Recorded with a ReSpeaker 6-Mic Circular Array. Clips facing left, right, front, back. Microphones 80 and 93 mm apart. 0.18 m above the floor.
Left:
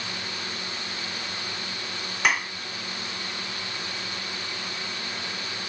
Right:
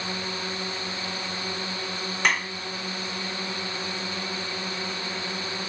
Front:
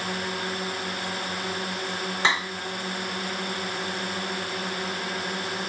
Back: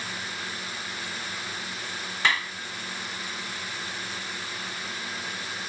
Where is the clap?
10° left.